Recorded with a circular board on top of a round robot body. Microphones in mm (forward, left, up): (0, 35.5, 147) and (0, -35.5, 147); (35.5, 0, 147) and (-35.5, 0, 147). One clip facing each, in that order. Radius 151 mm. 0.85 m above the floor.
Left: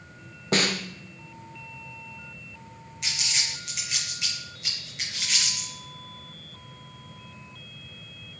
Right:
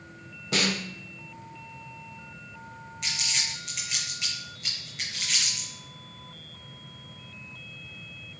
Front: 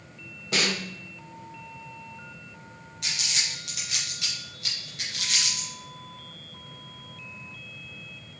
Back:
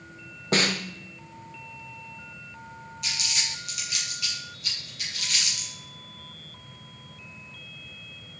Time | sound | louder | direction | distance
0.5 | a snare drum | left 3 dB, back 3 dB | 135° left | 1.1 m
3.0 | crumpling | left 1 dB, front 1 dB | 5° left | 4 m